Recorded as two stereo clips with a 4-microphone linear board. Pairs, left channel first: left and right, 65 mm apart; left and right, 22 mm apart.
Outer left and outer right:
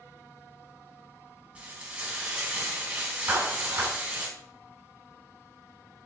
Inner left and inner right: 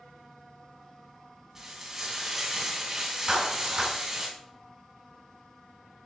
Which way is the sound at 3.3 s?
40° right (ahead or behind).